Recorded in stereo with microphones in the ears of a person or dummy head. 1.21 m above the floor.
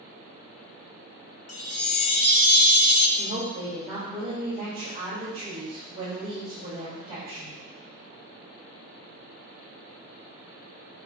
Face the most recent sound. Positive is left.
turn(degrees=-25)  # may be behind; listen again after turning